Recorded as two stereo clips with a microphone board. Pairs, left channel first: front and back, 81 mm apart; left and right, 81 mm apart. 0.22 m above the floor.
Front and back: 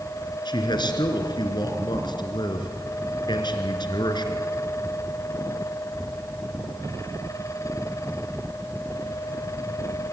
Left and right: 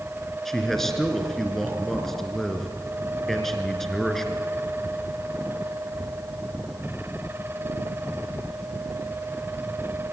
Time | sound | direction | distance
0.5 | a man speaking | 5° left | 3 m